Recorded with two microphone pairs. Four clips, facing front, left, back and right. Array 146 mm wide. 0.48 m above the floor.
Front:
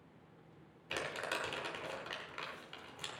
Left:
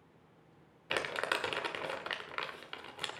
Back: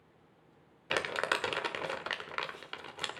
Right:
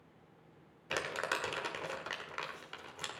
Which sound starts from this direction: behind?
Crumpling, at 0.9 s.